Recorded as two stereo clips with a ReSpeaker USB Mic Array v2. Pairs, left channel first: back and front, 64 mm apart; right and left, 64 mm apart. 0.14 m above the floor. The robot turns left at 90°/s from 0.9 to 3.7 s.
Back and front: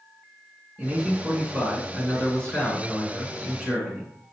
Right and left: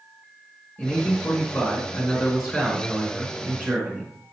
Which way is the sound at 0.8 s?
60° right.